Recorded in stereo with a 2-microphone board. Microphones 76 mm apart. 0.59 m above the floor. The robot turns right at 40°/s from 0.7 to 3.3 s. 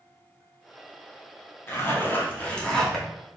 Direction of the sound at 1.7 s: 120° left.